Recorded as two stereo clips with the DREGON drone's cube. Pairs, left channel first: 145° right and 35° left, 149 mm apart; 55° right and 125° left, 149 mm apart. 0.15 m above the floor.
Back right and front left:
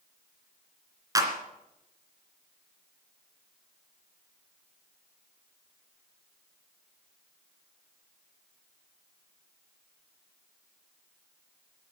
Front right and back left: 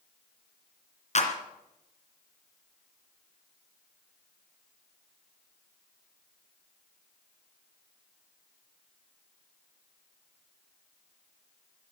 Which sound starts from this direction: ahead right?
A clap, at 1.1 s.